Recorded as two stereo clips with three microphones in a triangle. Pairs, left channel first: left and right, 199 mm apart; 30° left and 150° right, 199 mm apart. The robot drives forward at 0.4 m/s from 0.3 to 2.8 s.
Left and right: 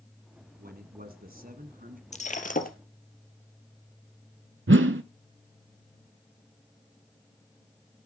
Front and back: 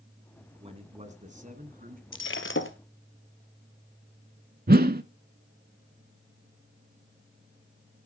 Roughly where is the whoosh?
Right.